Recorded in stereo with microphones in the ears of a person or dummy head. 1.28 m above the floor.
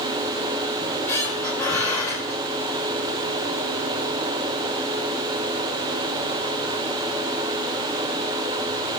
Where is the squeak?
15° left (ahead or behind), 3.5 m.